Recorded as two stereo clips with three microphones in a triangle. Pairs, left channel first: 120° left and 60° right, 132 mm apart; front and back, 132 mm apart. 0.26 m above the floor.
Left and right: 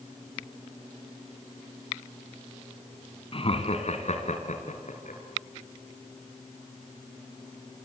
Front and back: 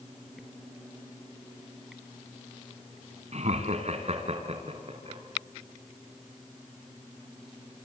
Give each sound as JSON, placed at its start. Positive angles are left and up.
{"t": 3.3, "sound": "laughter", "azimuth_deg": 160, "distance_m": 2.0}